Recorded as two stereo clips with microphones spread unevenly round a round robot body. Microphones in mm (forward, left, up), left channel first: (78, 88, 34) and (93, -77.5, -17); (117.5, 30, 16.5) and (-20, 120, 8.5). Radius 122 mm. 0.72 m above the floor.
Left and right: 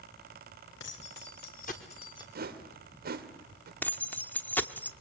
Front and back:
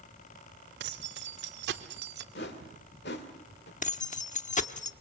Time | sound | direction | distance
0.8 | keys jangling | 140° left | 2.0 m
2.4 | a whoosh | 70° right | 2.5 m
3.8 | keys jangling | 10° left | 1.2 m